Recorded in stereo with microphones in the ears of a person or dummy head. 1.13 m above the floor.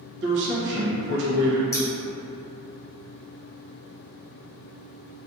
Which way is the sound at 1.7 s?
20° left (ahead or behind).